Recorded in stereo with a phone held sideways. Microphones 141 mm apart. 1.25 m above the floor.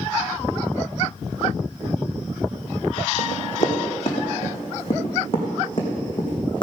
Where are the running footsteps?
60° left (ahead or behind), 3.5 m; by 6.6 s 35° left (ahead or behind), 4.5 m.